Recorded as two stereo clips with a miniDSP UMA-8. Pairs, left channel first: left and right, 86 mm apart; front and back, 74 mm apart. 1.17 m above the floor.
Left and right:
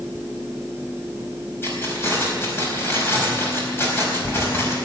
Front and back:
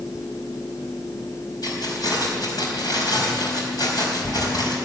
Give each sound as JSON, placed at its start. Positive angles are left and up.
{"t": 1.6, "sound": "keys jangling", "azimuth_deg": 30, "distance_m": 4.5}